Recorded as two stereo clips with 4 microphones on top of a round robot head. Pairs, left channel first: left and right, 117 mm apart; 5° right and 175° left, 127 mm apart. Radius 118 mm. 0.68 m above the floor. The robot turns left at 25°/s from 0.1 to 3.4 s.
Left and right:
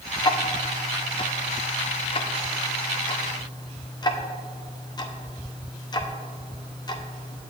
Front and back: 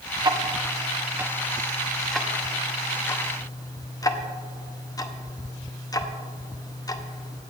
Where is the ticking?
130° left, 1.0 m; by 7.4 s 50° left, 1.0 m.